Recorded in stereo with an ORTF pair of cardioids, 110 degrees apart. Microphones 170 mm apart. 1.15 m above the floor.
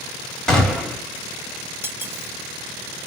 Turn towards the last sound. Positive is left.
turn(degrees=-15)